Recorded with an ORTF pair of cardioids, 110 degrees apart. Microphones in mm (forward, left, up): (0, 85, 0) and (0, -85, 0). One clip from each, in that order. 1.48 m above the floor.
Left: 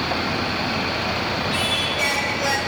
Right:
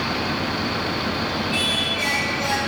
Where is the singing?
15° left, 1.7 m.